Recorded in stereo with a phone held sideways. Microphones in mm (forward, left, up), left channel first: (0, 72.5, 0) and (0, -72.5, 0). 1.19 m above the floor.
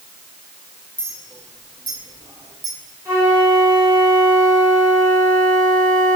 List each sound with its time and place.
1.0 s a clink: 35° right (ahead or behind), 5 m
3.0 s a flute: 20° right (ahead or behind), 4.5 m